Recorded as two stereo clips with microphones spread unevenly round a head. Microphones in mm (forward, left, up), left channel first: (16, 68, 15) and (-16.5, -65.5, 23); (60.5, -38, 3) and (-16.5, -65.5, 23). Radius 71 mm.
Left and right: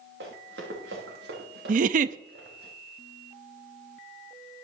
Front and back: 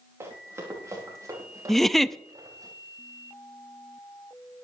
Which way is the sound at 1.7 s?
70° right.